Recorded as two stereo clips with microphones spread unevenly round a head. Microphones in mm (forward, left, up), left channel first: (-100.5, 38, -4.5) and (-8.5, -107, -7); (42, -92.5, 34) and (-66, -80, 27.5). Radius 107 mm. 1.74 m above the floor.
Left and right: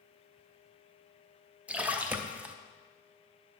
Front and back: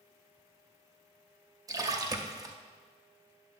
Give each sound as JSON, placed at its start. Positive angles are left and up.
{"t": 1.7, "sound": "a splash", "azimuth_deg": -140, "distance_m": 0.6}